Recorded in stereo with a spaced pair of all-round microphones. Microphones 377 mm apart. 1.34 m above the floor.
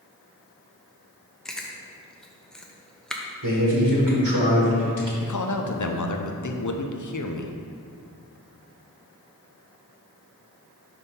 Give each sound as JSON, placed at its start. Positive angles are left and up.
{"t": 1.4, "sound": "chewing", "side_deg": 0, "distance_m": 0.6}
{"t": 3.4, "sound": "a man speaking", "side_deg": -65, "distance_m": 1.2}
{"t": 5.2, "sound": "a man speaking", "side_deg": 55, "distance_m": 0.6}